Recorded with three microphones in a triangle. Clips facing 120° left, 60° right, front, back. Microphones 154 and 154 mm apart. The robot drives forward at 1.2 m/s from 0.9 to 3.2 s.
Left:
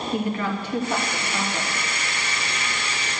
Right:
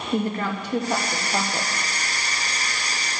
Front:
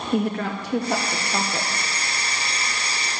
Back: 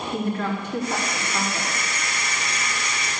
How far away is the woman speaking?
About 2.5 m.